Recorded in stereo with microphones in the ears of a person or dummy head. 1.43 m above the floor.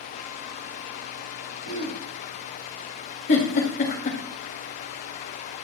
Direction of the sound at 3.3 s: 45° left (ahead or behind).